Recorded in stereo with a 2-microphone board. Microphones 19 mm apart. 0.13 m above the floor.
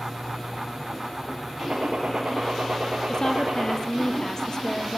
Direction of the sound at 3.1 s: 30° left (ahead or behind).